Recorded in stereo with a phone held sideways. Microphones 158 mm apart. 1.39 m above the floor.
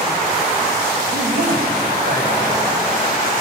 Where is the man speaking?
70° right (ahead or behind), 7 m.